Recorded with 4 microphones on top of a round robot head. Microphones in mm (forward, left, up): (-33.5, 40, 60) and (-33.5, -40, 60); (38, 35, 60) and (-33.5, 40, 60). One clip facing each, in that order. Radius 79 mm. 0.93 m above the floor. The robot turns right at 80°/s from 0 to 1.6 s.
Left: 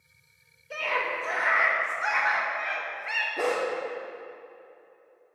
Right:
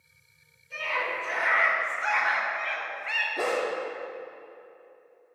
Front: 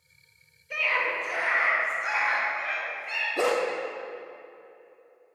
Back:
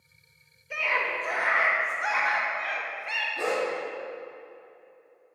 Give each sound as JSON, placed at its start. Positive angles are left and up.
{"t": 0.7, "sound": "a scream", "azimuth_deg": 90, "distance_m": 1.5}
{"t": 3.4, "sound": "a dog barking", "azimuth_deg": 0, "distance_m": 0.7}